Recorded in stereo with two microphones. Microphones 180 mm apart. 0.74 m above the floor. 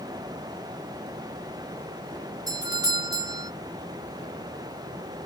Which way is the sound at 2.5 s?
20° right (ahead or behind).